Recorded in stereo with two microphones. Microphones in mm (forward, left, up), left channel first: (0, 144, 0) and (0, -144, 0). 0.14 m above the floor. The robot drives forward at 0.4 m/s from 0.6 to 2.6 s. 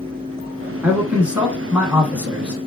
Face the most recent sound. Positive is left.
turn(degrees=-5)  # may be behind; listen again after turning